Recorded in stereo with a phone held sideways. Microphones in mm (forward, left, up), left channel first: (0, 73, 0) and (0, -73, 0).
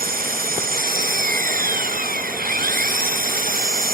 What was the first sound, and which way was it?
An engine running, 85° right.